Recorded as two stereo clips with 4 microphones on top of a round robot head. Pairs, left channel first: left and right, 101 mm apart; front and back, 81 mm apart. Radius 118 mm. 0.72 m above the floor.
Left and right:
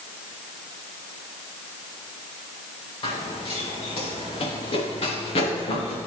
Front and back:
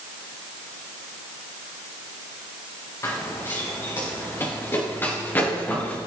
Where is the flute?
No flute in this recording.